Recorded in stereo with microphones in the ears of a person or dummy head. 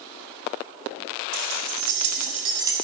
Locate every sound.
1.3 s keys jangling: 75° right (ahead or behind), 1.7 m; by 2.7 s 15° right (ahead or behind), 0.7 m